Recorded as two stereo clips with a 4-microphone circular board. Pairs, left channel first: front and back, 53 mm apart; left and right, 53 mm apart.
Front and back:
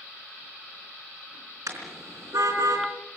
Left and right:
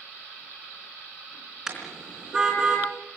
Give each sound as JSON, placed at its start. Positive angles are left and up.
{"t": 1.7, "sound": "a car horn", "azimuth_deg": -170, "distance_m": 4.0}